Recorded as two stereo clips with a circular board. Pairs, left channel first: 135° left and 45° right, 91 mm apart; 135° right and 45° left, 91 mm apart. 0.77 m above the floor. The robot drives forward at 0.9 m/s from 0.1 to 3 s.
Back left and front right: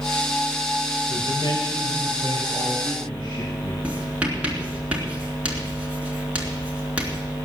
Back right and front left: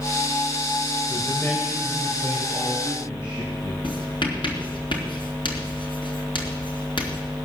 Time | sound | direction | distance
1.1 | a man speaking | 160° left | 2.5 m
3.8 | writing | 120° right | 4 m